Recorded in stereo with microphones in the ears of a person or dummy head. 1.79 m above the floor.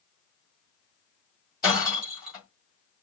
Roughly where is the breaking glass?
Centre.